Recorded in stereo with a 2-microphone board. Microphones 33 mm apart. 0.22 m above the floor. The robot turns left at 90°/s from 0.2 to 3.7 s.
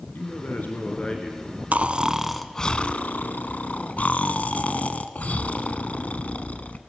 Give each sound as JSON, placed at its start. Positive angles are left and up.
{"t": 0.1, "sound": "a man speaking", "azimuth_deg": 110, "distance_m": 2.5}
{"t": 1.7, "sound": "snoring", "azimuth_deg": -120, "distance_m": 0.9}